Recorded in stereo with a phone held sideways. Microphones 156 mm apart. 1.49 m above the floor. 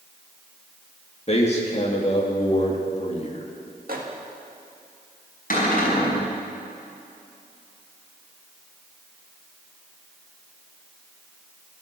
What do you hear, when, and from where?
1.3 s a man speaking: 45° left (ahead or behind), 2.5 m
3.9 s a microwave: 70° right (ahead or behind), 1.8 m
5.5 s a cupboard door: 65° left (ahead or behind), 5 m